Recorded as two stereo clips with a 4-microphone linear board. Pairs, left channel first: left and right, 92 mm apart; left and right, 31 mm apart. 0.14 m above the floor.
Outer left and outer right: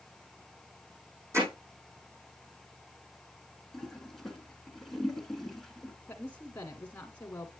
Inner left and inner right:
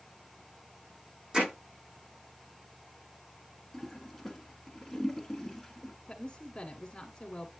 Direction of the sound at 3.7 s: 5° left (ahead or behind).